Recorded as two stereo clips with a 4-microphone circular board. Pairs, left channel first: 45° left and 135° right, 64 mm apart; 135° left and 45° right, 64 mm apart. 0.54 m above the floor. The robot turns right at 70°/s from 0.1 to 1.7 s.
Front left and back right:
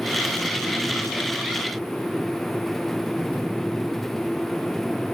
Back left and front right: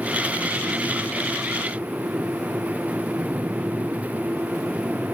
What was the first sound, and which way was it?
Only background noise.